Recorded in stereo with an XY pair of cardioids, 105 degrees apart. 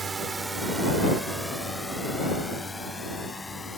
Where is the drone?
35° right; by 3.8 s 25° left.